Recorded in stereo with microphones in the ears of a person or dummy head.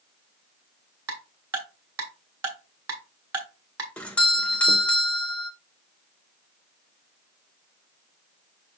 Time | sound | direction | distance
1.1 | ticking | 20° right (ahead or behind) | 1.5 m
4.0 | a doorbell | 5° left (ahead or behind) | 0.9 m